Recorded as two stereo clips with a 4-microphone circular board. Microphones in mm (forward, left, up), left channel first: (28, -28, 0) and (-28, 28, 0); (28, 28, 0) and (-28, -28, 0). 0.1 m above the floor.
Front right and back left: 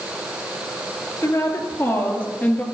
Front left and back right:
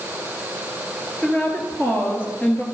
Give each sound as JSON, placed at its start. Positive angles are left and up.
{"t": 1.2, "sound": "a woman speaking", "azimuth_deg": -30, "distance_m": 2.5}